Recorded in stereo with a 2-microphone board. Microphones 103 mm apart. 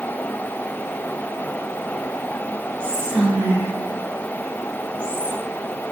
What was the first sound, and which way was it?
Whispering, 5° left (ahead or behind).